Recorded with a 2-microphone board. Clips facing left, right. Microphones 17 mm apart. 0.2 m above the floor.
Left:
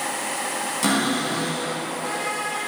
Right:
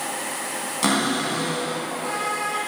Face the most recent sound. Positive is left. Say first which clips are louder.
# right 1 dB
turn(degrees=-15)  # may be behind; listen again after turning